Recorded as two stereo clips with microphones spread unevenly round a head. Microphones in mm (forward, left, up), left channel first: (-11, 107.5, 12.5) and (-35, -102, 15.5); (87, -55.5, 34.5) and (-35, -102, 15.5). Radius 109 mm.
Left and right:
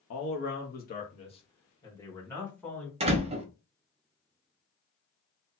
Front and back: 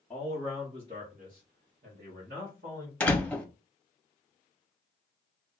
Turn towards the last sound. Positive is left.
turn(degrees=-45)